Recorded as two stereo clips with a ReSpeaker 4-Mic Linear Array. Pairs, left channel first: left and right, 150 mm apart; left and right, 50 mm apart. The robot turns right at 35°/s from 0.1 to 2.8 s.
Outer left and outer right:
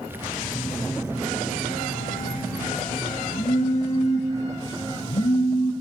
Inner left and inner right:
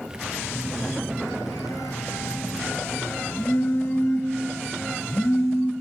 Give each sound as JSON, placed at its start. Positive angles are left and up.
{"t": 0.4, "sound": "a phone buzzing", "azimuth_deg": 45, "distance_m": 4.0}